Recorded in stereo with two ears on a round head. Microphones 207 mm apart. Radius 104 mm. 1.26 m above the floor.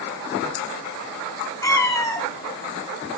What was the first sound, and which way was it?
A cat meowing, 15° left (ahead or behind).